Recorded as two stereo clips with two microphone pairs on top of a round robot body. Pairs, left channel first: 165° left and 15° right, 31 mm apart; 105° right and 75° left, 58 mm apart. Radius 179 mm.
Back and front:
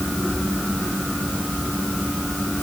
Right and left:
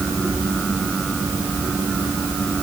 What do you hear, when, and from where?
Only background noise.